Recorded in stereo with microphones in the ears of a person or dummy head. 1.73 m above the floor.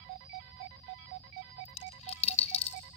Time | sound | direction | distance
1.6 | a dropped coin | 40° left (ahead or behind) | 3.5 m